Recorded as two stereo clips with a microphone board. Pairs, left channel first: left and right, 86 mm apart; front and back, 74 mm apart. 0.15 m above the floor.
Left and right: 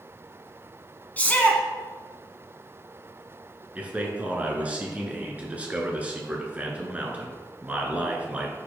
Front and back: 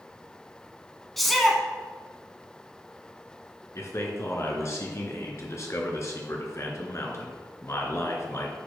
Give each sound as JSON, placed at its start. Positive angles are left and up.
{"t": 1.2, "sound": "a shout", "azimuth_deg": 85, "distance_m": 1.0}
{"t": 3.8, "sound": "a man speaking", "azimuth_deg": -25, "distance_m": 1.6}